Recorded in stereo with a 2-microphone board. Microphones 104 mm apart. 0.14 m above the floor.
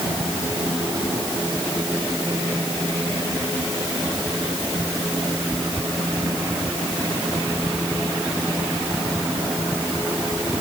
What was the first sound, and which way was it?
Only background noise.